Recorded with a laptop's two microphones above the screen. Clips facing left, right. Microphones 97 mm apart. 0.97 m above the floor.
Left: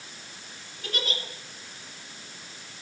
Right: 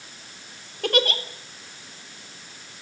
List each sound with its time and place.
0.8 s a giggle: 65° right (ahead or behind), 1.9 m